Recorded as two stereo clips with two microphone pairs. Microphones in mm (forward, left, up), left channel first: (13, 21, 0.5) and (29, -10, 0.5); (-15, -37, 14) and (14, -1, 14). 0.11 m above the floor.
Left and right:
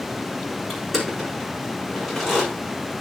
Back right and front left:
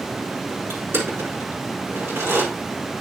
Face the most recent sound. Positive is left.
turn(degrees=30)